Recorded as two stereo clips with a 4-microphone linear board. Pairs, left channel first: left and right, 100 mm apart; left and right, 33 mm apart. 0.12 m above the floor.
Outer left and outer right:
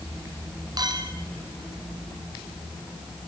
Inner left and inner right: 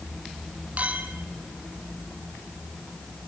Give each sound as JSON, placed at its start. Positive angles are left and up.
{"t": 0.8, "sound": "a clink", "side_deg": -45, "distance_m": 3.5}